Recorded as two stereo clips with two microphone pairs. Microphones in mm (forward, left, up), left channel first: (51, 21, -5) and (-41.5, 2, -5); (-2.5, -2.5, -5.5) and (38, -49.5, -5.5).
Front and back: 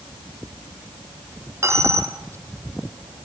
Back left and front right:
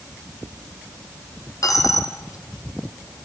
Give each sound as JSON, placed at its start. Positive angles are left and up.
{"t": 1.6, "sound": "a dropped coin", "azimuth_deg": 135, "distance_m": 1.8}